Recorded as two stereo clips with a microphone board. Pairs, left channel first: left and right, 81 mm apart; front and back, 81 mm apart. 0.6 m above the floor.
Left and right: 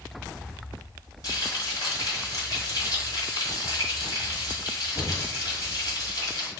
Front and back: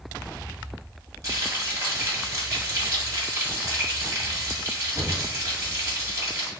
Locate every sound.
1.2 s frying: 130° left, 2 m